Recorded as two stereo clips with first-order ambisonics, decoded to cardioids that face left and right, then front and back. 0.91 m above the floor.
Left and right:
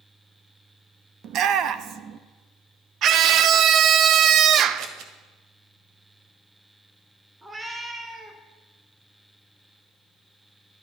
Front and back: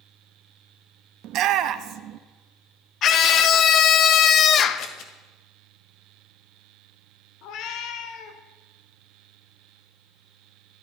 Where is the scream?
45° right, 0.6 m.